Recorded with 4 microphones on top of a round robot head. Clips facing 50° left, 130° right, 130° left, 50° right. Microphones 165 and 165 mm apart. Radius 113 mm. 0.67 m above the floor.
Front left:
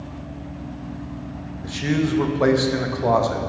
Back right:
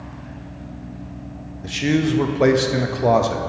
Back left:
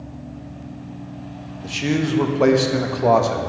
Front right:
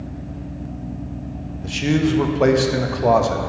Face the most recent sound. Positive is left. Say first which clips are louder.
# back right 3 dB, front right 3 dB
turn(degrees=-140)